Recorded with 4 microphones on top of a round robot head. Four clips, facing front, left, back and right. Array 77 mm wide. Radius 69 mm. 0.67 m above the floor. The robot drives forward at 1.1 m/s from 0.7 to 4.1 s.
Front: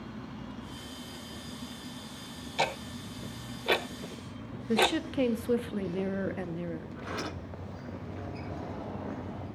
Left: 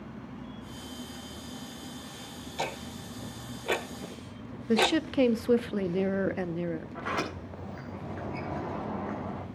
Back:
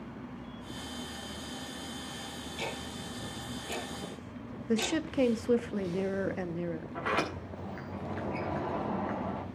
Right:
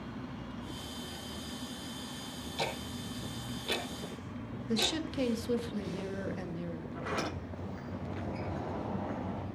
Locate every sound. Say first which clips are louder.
2.6 s ticking: left 2 dB, front 8 dB; 15° left, 2.5 m; by 5.0 s 45° left, 0.9 m
4.7 s a woman speaking: left 9 dB, front 3 dB; 100° left, 1.2 m
7.0 s a sliding door: even, back 6 dB; 150° left, 6.5 m